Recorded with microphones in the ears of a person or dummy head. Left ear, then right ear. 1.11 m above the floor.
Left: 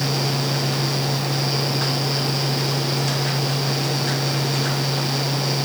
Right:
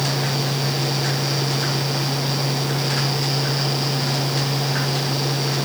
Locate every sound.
Only background noise.